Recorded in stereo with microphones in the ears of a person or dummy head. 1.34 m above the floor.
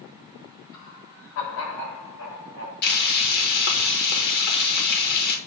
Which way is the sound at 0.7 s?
80° left.